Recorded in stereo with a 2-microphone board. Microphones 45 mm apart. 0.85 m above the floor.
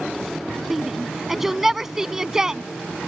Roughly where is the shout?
Centre.